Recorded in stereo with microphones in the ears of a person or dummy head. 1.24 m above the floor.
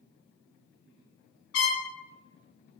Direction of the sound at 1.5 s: 75° left (ahead or behind).